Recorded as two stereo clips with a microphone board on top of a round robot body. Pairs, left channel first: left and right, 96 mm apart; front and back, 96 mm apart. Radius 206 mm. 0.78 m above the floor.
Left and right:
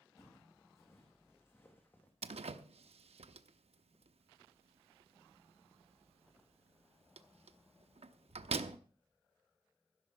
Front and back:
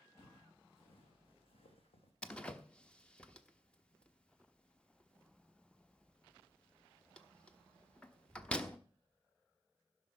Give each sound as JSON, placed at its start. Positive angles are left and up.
{"t": 0.2, "sound": "footsteps", "azimuth_deg": 30, "distance_m": 3.0}
{"t": 2.2, "sound": "a door slam", "azimuth_deg": -80, "distance_m": 0.6}